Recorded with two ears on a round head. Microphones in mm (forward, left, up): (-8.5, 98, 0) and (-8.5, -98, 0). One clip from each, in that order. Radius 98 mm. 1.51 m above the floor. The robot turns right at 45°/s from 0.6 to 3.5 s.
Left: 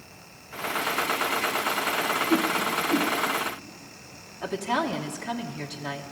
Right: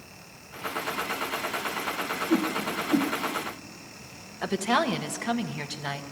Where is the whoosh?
50° right (ahead or behind), 1.5 m; by 3.1 s 60° right (ahead or behind), 1.5 m.